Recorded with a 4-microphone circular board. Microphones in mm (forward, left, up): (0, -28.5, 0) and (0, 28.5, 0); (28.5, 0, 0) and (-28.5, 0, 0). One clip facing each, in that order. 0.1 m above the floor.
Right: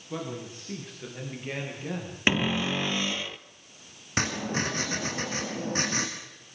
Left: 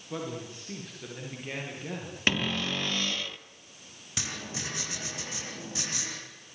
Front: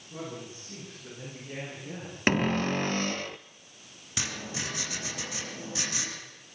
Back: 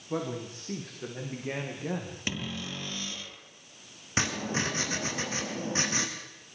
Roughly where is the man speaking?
Behind.